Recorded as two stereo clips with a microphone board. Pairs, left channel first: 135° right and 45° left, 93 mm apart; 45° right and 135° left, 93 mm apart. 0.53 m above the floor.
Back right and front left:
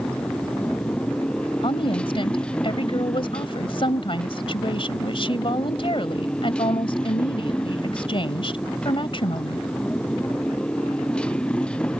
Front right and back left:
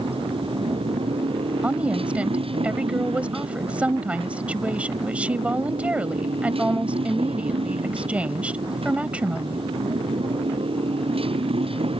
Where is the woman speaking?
150° right.